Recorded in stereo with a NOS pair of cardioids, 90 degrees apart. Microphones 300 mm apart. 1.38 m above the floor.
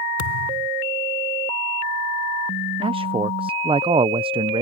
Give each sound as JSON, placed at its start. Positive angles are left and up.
{"t": 0.2, "sound": "a thud", "azimuth_deg": 70}
{"t": 2.8, "sound": "a man speaking", "azimuth_deg": -20}